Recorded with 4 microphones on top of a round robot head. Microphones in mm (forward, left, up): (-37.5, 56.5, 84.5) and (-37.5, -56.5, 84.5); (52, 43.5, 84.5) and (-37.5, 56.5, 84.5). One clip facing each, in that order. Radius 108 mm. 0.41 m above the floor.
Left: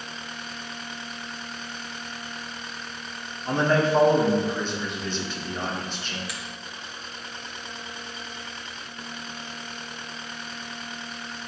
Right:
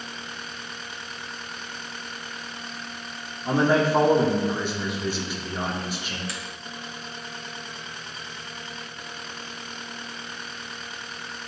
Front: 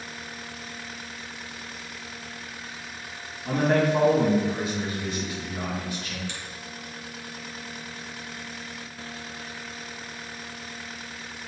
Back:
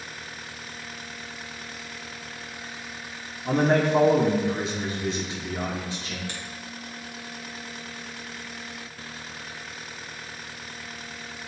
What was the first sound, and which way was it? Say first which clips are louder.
A man speaking: right 1 dB, back 1 dB; 160° right.